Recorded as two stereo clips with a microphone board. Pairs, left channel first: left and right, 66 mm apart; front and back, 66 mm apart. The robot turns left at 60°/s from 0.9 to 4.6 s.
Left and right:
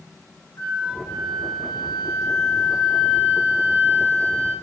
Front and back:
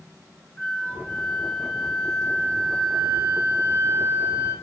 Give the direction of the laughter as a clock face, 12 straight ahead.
No laughter in this recording.